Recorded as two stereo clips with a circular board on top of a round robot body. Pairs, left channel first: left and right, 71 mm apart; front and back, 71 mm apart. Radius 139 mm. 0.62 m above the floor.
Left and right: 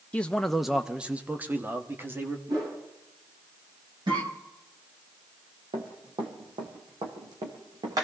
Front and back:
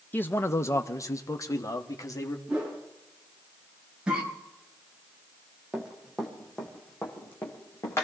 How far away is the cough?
About 4.5 m.